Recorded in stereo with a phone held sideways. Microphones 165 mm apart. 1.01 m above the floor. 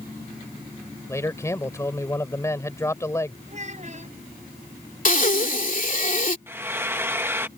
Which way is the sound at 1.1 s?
15° left (ahead or behind).